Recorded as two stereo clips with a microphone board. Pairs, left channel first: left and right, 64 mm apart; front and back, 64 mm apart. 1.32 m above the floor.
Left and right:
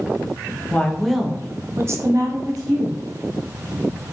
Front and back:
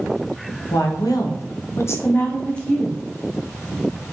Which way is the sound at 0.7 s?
20° left.